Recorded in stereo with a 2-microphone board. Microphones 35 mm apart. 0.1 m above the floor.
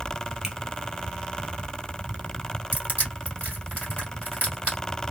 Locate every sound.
0.4 s a finger snap: 15° right (ahead or behind), 1.3 m
2.7 s crushing: 50° right (ahead or behind), 2 m